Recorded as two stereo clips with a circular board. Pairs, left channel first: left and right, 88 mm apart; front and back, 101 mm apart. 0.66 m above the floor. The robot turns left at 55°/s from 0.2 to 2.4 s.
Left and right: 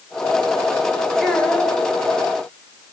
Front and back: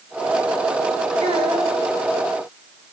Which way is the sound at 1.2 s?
175° left.